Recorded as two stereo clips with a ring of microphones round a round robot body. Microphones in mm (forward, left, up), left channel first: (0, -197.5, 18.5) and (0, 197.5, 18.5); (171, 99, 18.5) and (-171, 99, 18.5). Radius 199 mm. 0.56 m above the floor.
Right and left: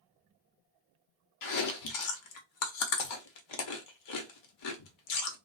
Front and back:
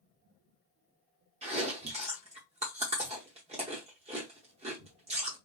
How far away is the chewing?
About 0.8 m.